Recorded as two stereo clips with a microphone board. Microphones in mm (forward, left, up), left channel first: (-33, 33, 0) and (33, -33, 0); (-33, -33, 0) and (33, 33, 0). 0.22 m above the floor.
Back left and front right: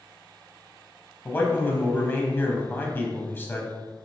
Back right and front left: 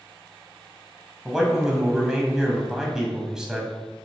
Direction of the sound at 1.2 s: 120° left.